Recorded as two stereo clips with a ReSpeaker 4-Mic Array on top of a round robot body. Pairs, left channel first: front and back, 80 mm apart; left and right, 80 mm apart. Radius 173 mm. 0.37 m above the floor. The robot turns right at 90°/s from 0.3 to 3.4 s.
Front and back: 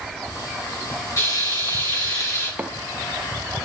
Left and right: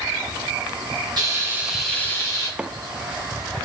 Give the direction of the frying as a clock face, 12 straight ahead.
2 o'clock.